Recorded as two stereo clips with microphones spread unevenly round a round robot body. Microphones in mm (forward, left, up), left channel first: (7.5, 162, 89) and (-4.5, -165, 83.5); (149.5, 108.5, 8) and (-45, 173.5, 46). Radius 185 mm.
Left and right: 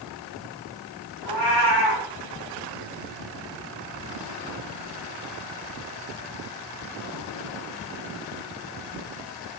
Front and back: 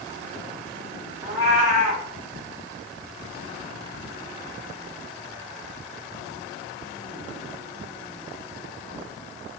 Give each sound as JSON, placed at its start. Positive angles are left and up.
{"t": 1.2, "sound": "a cat meowing", "azimuth_deg": 100, "distance_m": 1.4}